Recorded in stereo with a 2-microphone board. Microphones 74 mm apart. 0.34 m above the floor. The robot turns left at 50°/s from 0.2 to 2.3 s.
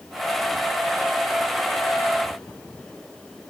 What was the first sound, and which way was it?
Only background noise.